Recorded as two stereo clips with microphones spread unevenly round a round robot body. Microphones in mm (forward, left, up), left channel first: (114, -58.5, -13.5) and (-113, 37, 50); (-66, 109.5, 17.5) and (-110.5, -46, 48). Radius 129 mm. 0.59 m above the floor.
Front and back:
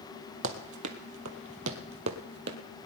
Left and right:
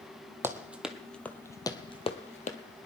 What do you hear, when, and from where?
0.4 s running footsteps: 175° right, 1.3 m; by 2.6 s 115° left, 1.3 m